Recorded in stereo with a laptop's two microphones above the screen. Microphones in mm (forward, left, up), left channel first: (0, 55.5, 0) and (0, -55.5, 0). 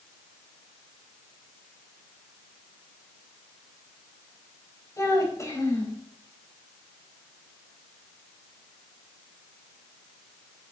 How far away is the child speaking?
About 4 m.